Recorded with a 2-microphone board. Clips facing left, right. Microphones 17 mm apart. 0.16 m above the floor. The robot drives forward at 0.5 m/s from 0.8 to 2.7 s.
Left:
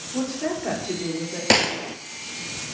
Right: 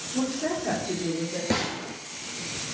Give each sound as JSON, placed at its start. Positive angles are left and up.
{"t": 0.1, "sound": "a woman speaking", "side_deg": 45, "distance_m": 4.0}
{"t": 1.5, "sound": "a gunshot", "side_deg": 80, "distance_m": 0.5}